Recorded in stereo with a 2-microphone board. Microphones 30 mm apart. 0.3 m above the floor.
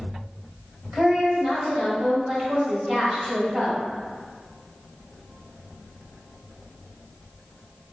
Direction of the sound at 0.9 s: 35° right (ahead or behind).